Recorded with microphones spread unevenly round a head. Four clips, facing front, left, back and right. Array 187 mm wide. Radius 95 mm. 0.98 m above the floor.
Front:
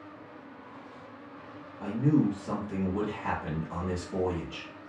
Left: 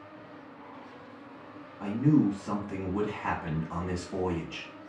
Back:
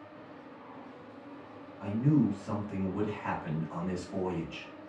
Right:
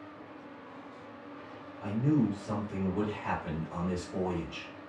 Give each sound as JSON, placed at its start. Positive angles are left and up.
{"t": 1.8, "sound": "a man speaking", "azimuth_deg": 70, "distance_m": 1.3}